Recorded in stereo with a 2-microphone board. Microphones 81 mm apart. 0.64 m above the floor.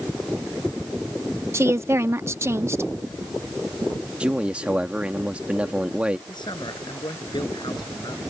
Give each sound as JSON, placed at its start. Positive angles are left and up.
{"t": 1.5, "sound": "a woman speaking", "side_deg": -35}
{"t": 4.2, "sound": "a man speaking", "side_deg": -15}
{"t": 6.3, "sound": "a man speaking", "side_deg": 70}